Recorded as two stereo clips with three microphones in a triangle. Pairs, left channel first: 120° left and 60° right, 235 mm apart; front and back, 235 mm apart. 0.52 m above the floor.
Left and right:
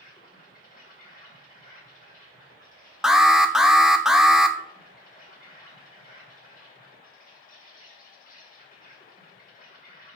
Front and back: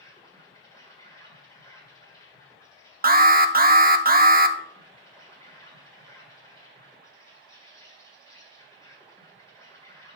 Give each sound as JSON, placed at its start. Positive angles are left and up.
{"t": 0.0, "sound": "an insect", "azimuth_deg": 75, "distance_m": 2.5}
{"t": 3.0, "sound": "an alarm", "azimuth_deg": -145, "distance_m": 0.6}